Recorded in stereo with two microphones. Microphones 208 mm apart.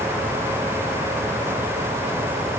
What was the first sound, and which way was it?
Only background noise.